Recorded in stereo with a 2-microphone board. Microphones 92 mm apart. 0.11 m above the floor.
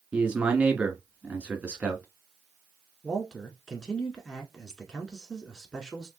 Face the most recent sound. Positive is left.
turn(degrees=5)  # may be behind; listen again after turning